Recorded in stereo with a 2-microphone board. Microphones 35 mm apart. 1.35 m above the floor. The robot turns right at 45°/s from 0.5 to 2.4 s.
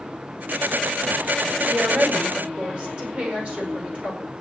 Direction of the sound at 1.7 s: 80° right.